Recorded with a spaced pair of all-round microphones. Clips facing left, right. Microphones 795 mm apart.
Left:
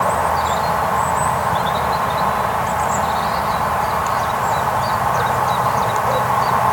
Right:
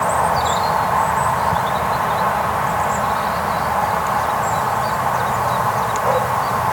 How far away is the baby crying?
I don't hear a baby crying.